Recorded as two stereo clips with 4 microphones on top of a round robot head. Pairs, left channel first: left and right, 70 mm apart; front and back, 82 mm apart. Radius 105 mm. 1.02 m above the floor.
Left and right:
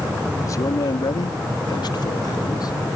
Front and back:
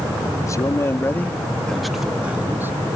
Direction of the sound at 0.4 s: 45° left.